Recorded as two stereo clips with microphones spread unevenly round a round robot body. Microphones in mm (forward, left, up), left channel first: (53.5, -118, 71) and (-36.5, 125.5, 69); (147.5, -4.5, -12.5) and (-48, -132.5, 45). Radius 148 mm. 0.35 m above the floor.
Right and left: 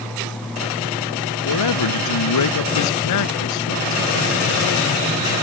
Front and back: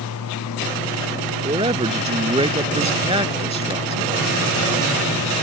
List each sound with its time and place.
1.4 s a man speaking: 80° right